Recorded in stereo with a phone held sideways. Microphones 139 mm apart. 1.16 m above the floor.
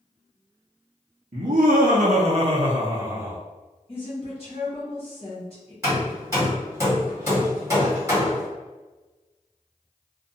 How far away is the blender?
I don't hear a blender.